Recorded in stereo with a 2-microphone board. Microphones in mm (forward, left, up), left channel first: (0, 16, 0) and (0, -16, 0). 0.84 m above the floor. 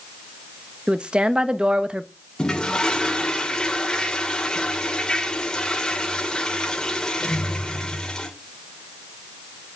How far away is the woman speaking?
About 0.8 m.